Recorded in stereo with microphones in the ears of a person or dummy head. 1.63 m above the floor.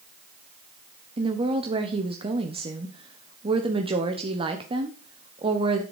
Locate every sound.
1.2 s a woman speaking: 30° right (ahead or behind), 1.1 m